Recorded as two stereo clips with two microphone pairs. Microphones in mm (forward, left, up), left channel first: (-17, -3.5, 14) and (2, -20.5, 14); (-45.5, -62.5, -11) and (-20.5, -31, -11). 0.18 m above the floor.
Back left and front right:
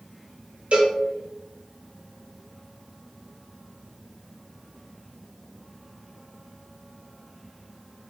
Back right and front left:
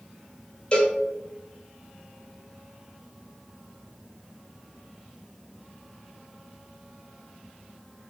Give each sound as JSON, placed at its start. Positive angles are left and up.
{"t": 0.7, "sound": "a cowbell", "azimuth_deg": -65, "distance_m": 0.7}